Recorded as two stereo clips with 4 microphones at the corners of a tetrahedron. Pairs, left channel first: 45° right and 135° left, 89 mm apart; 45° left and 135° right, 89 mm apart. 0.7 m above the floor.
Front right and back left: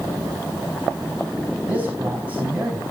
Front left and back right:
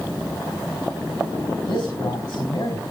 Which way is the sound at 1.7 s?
65° left.